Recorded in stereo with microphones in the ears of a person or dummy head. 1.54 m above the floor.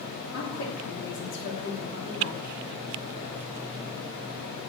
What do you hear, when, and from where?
0.3 s a woman speaking: 85° left, 3.5 m; by 2.5 s 55° left (ahead or behind), 3.5 m